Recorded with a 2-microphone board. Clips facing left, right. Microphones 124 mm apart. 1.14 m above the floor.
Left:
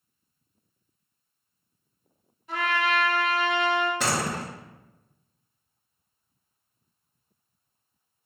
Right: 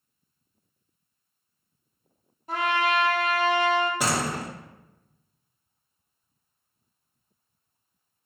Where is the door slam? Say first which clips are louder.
Right 1 dB; 10° right (ahead or behind), 0.9 m.